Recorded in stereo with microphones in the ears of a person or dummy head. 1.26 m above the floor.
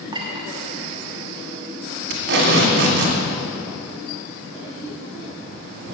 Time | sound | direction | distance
0.1 | a clink | 25° right (ahead or behind) | 1.3 m
2.1 | tape being pulled | 55° right (ahead or behind) | 2.5 m